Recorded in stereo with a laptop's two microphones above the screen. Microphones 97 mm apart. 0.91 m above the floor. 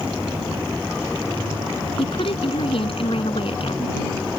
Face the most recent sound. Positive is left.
turn(degrees=65)  # may be behind; listen again after turning